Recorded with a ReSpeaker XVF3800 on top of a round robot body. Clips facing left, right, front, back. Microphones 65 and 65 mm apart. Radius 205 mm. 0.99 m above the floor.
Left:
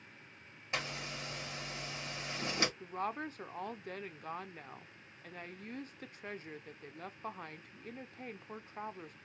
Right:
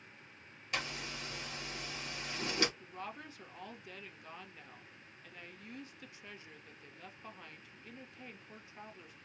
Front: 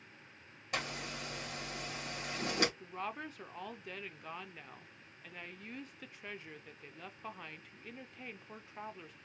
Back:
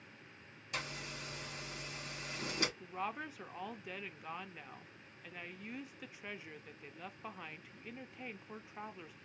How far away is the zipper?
About 2 m.